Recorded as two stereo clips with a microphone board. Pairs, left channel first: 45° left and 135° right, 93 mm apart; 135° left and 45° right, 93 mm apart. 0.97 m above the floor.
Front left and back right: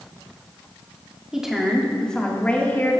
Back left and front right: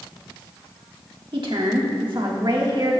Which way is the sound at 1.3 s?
55° right.